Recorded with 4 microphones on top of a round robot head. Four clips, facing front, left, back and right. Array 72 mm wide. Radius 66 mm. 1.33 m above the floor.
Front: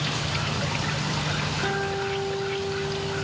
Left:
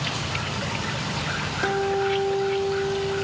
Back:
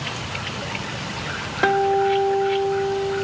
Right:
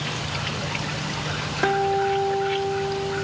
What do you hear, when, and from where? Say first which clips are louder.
1.6 s a guitar: right 3 dB, back 12 dB; 155° right, 2 m